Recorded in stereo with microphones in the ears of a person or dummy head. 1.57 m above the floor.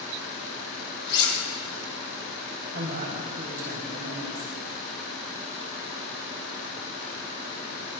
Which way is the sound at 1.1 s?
25° left (ahead or behind).